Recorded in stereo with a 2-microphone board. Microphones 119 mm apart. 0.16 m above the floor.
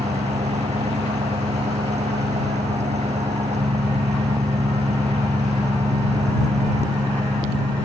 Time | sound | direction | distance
0.0 | an engine running | 75° right (ahead or behind) | ?